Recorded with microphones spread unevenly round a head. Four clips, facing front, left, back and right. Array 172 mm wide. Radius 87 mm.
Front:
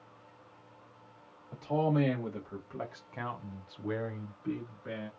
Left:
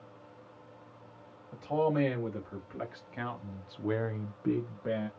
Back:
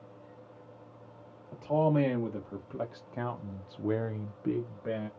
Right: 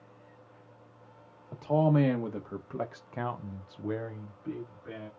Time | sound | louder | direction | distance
1.5 | a man speaking | right 3 dB, back 3 dB | 105° right | 1.4 m